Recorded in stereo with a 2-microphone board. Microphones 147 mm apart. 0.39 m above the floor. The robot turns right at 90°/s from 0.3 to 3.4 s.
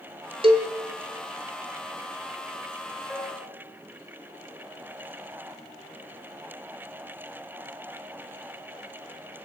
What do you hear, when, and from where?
0.4 s a cowbell: 35° right (ahead or behind), 1.3 m; by 0.7 s 50° right (ahead or behind), 1.3 m
3.1 s a piano: 10° right (ahead or behind), 3 m; by 3.6 s 20° left (ahead or behind), 3 m